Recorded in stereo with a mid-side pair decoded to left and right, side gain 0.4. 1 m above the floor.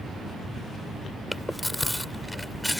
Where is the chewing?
10° left.